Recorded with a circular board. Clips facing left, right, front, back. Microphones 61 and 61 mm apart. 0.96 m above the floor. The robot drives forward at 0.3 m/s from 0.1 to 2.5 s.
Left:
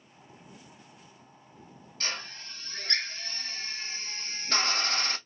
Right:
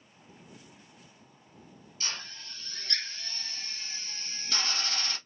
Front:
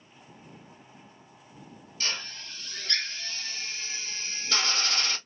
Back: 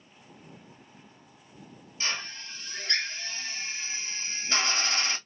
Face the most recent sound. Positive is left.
turn(degrees=120)